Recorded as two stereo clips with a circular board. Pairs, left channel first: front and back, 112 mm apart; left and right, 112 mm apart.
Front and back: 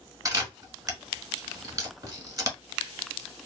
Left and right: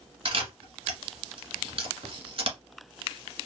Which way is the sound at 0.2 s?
125° right.